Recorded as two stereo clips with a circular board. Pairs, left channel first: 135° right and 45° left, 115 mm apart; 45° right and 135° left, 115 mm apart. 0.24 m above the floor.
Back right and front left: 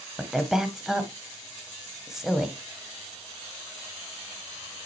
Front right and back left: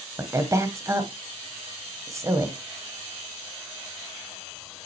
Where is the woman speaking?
125° left, 1.4 m.